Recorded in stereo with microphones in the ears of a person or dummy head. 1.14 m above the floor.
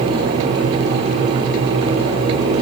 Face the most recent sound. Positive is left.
No sound to turn to.